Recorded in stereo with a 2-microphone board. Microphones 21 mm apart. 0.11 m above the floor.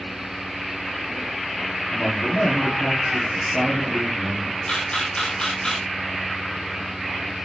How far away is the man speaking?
About 4.5 m.